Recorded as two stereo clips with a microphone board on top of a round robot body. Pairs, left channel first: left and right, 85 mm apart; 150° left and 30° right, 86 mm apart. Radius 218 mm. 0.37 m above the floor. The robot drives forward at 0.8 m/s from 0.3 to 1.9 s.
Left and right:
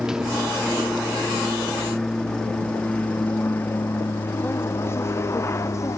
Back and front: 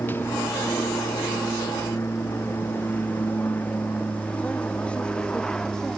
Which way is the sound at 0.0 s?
165° right.